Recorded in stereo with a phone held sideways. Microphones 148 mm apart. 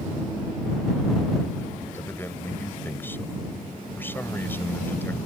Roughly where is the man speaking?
Centre.